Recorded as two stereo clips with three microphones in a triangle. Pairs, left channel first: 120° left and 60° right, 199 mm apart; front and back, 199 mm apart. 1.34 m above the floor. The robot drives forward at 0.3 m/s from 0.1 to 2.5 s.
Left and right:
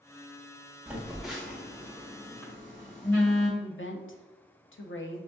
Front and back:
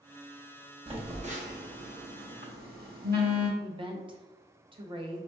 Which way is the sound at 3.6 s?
120° left.